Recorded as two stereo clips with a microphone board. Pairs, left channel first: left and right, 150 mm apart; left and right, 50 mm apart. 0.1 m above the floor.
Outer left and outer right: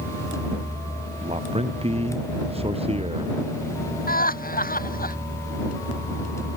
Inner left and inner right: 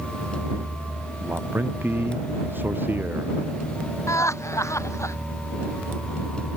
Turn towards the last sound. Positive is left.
turn(degrees=75)  # may be behind; listen again after turning